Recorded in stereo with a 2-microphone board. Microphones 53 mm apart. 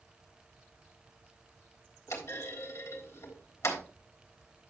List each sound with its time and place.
2.1 s a clunk: 80° left, 3.5 m